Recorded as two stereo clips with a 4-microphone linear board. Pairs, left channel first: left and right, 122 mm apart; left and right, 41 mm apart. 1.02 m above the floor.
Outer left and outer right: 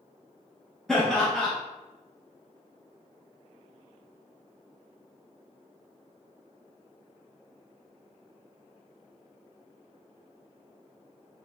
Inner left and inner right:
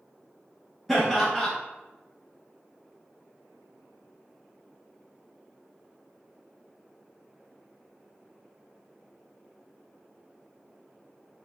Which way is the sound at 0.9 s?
5° left (ahead or behind).